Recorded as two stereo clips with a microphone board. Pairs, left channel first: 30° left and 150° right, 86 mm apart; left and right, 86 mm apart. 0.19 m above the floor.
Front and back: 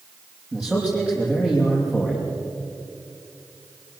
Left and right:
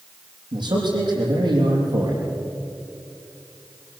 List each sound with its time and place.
0.5 s a man speaking: 75° right, 6.5 m